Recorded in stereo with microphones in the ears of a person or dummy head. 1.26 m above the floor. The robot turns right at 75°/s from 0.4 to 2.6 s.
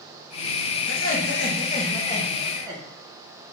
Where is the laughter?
75° left, 1.2 m; by 2.8 s 155° right, 1.2 m.